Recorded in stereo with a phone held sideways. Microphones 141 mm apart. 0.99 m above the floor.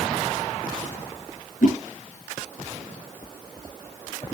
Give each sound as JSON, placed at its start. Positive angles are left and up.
{"t": 1.6, "sound": "a whoosh", "side_deg": 60, "distance_m": 7.0}